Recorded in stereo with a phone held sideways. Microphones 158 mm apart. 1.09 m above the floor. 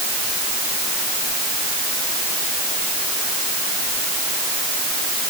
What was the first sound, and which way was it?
Only background noise.